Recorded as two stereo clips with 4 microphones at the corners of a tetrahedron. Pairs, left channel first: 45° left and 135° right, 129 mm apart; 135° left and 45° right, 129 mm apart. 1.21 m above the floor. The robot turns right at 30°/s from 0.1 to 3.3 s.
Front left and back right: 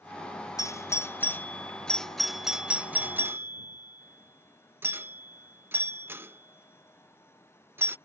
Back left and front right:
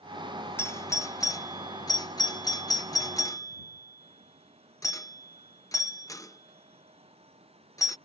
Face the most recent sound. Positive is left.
turn(degrees=165)